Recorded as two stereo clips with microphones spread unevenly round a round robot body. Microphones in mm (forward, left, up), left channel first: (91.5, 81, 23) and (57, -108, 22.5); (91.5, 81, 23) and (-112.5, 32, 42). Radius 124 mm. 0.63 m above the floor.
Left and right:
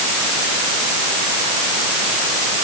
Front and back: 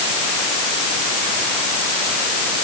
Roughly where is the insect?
No insect in this recording.